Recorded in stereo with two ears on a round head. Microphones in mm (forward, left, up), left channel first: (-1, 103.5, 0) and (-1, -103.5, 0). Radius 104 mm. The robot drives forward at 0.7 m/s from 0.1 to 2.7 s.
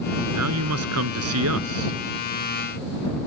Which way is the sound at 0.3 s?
80° right.